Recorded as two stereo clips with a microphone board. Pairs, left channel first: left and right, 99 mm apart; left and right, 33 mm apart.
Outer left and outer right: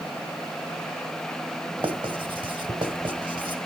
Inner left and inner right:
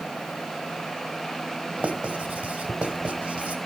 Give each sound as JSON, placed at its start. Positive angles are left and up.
{"t": 1.8, "sound": "writing", "side_deg": -55, "distance_m": 1.5}